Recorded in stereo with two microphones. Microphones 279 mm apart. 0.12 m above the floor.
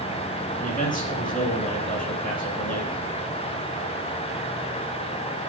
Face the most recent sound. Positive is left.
turn(degrees=30)  # may be behind; listen again after turning